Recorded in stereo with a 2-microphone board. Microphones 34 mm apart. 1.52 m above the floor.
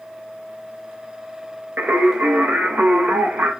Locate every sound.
1.8 s singing: 60° right (ahead or behind), 0.7 m